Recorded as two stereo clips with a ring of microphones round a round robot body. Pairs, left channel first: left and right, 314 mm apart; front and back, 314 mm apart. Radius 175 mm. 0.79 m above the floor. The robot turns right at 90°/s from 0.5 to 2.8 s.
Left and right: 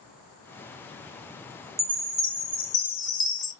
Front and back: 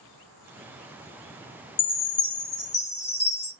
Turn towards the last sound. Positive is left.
turn(degrees=55)